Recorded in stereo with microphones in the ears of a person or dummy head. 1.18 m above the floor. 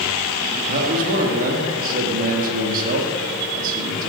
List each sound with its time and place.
0.7 s a man speaking: 50° right (ahead or behind), 2 m